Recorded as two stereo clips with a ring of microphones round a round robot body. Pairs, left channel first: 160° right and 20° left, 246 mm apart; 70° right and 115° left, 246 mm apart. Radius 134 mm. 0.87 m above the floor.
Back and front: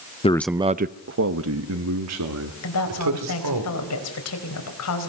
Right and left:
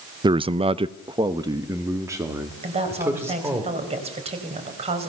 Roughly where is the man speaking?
Behind.